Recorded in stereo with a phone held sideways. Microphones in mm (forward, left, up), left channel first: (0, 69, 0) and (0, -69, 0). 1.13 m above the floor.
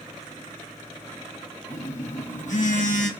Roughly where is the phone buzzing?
Left.